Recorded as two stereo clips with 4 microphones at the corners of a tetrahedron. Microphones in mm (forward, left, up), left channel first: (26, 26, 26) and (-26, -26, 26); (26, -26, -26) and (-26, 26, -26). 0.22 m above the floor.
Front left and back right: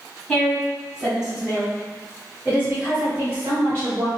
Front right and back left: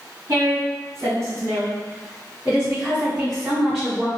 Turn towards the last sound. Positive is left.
turn(degrees=-125)